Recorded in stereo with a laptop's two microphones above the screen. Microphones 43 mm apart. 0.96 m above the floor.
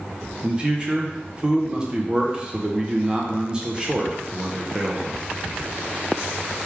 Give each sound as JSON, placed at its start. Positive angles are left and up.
{"t": 0.4, "sound": "a man speaking", "side_deg": -20, "distance_m": 0.9}